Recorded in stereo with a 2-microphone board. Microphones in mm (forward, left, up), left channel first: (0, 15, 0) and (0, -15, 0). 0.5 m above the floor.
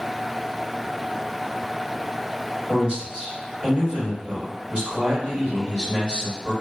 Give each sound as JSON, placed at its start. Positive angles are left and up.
{"t": 2.7, "sound": "a man speaking", "side_deg": -30, "distance_m": 1.8}